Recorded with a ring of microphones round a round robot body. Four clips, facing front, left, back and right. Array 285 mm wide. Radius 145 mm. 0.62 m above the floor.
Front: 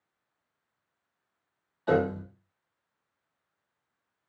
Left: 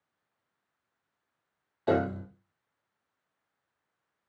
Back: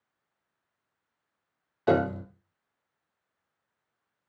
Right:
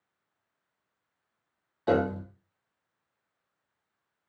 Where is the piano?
175° right, 1.0 m.